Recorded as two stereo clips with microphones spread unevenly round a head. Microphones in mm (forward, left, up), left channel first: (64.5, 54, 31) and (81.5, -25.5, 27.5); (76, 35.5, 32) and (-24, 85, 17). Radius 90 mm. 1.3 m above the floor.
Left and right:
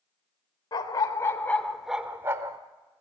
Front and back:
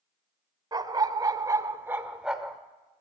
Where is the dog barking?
105° left, 1.3 m; by 2.6 s 100° right, 1.1 m.